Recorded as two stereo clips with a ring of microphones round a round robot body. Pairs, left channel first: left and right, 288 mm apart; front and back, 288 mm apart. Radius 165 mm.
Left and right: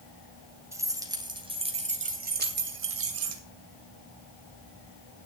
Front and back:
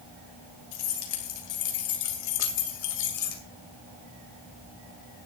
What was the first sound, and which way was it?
Keys jangling, 10° right.